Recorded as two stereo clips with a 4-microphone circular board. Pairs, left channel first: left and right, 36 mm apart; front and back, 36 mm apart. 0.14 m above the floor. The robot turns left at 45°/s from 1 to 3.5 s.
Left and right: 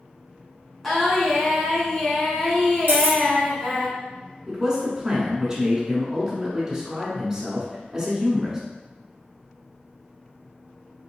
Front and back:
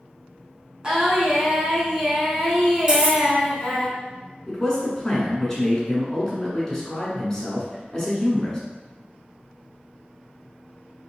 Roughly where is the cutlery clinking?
Behind right.